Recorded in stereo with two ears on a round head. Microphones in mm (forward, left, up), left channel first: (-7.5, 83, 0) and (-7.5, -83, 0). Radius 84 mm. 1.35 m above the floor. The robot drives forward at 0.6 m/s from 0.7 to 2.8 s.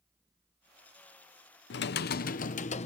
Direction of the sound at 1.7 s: 70° left (ahead or behind).